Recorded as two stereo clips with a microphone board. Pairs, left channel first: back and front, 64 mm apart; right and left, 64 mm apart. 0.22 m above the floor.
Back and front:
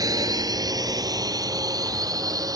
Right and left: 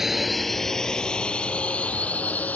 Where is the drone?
5° left; by 2.6 s 25° right.